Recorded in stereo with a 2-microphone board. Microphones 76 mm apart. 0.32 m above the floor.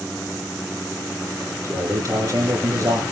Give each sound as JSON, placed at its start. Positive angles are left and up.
{"t": 1.6, "sound": "a man speaking", "side_deg": -50, "distance_m": 7.0}